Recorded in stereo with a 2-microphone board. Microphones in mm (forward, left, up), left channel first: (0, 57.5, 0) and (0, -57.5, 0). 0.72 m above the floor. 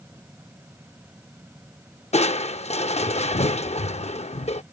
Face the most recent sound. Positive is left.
turn(degrees=65)  # may be behind; listen again after turning